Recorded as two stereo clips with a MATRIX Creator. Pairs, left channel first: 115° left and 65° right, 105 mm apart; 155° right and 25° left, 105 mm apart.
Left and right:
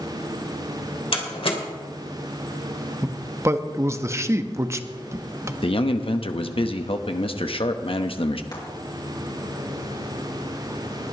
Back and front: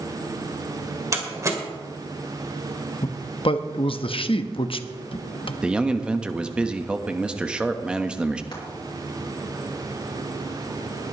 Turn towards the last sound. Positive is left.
turn(degrees=160)